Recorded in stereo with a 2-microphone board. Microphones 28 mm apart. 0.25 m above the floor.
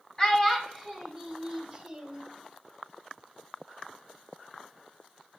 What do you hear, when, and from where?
0.2 s a child speaking: 20° left (ahead or behind), 0.6 m; by 2.2 s 5° right (ahead or behind), 1.4 m